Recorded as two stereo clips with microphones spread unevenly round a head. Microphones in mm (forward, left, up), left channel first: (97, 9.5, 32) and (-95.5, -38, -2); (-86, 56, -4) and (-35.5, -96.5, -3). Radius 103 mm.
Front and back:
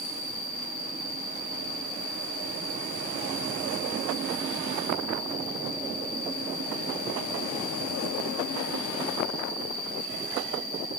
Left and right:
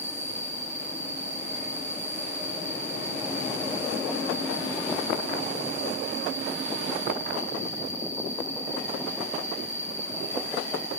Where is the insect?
50° right, 9.5 m.